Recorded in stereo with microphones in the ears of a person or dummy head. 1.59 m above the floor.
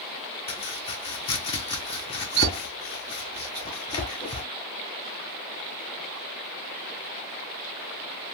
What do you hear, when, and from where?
0.5 s chopping: 30° left (ahead or behind), 0.7 m